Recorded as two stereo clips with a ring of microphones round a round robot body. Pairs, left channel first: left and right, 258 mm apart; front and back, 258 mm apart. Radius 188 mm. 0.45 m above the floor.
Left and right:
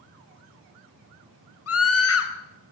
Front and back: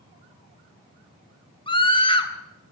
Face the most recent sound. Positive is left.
turn(degrees=70)